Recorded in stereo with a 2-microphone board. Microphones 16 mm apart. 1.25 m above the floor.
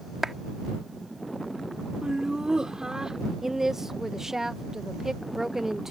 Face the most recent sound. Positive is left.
turn(degrees=-25)  # may be behind; listen again after turning